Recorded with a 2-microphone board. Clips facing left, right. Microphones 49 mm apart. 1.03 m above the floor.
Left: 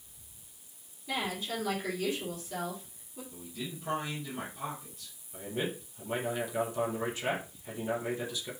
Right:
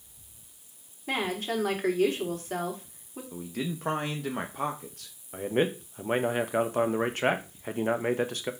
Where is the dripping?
No dripping in this recording.